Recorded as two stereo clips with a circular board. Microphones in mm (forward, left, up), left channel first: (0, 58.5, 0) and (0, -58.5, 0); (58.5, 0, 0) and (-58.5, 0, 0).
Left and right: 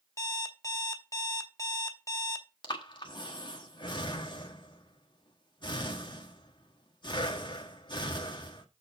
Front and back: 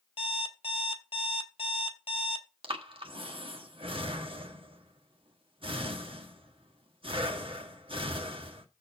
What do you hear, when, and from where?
0.2 s an alarm clock: 30° left, 1.2 m
2.6 s breathing: 140° left, 1.3 m